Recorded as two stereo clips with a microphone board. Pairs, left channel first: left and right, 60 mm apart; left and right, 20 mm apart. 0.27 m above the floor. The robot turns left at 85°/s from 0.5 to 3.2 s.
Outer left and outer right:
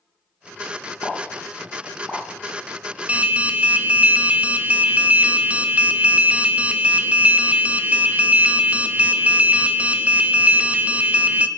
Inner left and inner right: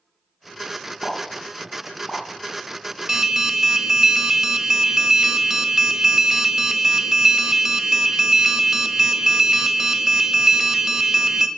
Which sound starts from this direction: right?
An alarm, at 3.1 s.